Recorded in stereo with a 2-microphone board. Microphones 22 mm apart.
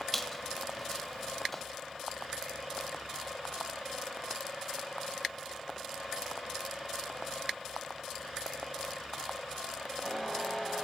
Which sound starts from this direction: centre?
A squeak, at 0.1 s.